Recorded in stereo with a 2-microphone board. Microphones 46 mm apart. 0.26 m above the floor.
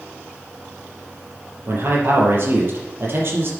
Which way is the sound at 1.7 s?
50° right (ahead or behind).